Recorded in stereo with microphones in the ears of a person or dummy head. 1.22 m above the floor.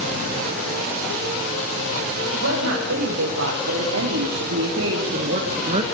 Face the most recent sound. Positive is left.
turn(degrees=-25)  # may be behind; listen again after turning